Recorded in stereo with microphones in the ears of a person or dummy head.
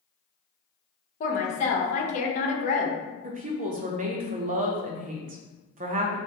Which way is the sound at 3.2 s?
35° right (ahead or behind).